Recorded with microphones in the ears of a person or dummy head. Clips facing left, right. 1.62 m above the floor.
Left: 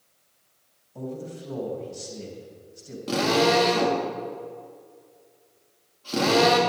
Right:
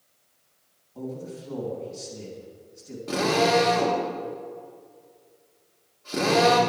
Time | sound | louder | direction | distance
0.9 | a man speaking | even | 60° left (ahead or behind) | 3 m
3.1 | a drill | left 1 dB | 50° left (ahead or behind) | 2.5 m